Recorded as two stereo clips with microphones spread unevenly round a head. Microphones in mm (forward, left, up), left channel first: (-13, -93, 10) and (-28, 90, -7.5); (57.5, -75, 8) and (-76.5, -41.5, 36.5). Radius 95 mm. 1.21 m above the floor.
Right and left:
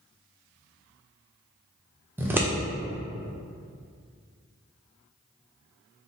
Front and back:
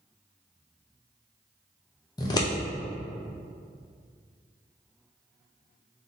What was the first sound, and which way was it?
Scissors, 25° left.